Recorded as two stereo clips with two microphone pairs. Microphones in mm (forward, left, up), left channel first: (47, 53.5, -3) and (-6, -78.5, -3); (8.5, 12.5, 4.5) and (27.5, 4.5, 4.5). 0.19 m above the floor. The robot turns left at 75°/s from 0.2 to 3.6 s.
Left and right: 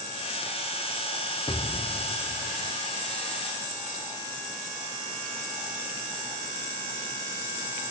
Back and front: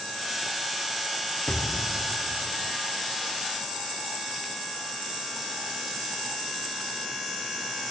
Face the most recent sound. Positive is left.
turn(degrees=-35)